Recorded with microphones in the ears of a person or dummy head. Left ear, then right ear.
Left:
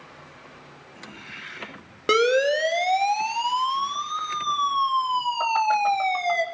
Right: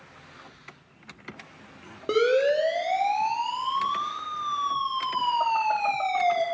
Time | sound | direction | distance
2.1 | a siren | 55° left (ahead or behind) | 3 m